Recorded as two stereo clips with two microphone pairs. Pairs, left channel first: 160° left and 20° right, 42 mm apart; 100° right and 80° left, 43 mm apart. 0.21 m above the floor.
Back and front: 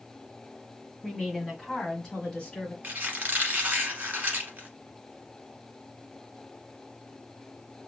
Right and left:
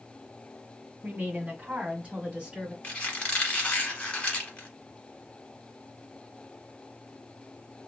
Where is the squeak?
50° right, 1.1 m.